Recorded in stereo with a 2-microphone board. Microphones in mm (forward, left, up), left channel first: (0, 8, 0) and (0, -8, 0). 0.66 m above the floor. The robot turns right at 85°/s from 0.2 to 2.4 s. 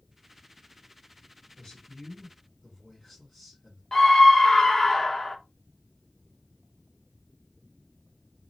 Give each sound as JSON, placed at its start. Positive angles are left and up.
{"t": 1.6, "sound": "a man speaking", "azimuth_deg": 85, "distance_m": 1.8}
{"t": 3.9, "sound": "a scream", "side_deg": 20, "distance_m": 0.6}